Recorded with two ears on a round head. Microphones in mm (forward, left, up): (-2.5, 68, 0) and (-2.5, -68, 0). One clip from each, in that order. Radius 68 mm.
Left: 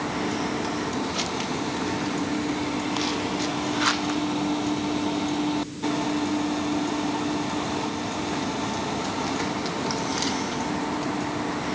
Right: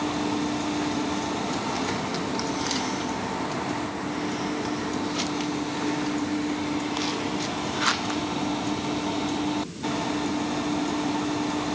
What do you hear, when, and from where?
Only background noise.